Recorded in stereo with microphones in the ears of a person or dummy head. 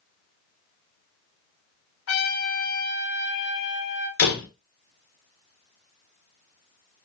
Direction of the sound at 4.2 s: 50° left (ahead or behind).